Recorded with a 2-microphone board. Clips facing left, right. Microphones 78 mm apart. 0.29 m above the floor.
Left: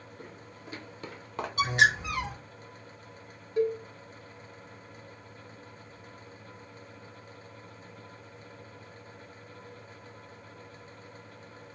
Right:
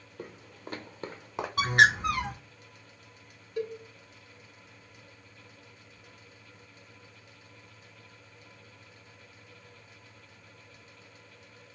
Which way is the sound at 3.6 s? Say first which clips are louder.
Left 7 dB; 30° left (ahead or behind).